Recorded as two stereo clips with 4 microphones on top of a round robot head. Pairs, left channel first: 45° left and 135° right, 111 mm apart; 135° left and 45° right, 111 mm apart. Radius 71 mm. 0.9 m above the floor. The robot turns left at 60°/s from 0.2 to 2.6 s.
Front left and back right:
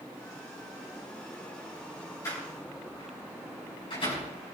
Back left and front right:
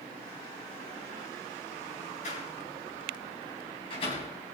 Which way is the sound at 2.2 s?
110° left.